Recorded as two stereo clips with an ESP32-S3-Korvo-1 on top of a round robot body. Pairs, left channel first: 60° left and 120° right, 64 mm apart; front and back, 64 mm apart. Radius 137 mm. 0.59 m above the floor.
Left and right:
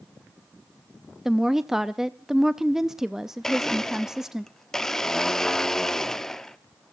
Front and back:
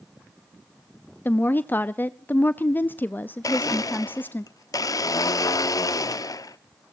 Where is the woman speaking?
40° right, 0.7 m.